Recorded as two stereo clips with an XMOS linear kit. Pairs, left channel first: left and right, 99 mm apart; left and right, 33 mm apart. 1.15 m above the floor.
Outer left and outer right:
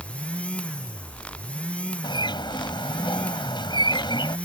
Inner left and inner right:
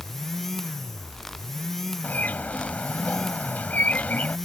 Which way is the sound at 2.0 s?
50° left (ahead or behind).